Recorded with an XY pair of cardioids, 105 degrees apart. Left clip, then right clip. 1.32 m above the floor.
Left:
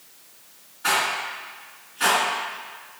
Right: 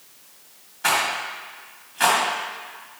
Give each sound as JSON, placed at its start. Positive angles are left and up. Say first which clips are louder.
{"t": 0.8, "sound": "a rattle", "louder": "right 1 dB", "azimuth_deg": -70, "distance_m": 1.4}